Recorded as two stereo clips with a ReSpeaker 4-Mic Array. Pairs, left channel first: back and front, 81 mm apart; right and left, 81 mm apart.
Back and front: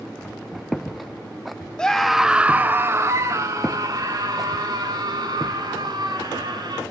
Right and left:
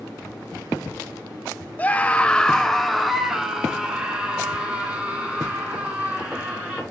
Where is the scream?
115° right, 0.9 m; by 6.8 s 20° left, 3 m.